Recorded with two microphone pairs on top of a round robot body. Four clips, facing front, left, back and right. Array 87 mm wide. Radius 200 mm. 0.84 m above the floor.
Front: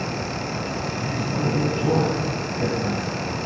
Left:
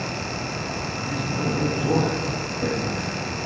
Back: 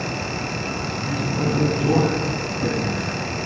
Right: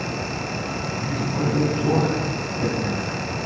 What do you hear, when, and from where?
1.0 s a man speaking: 35° right, 9 m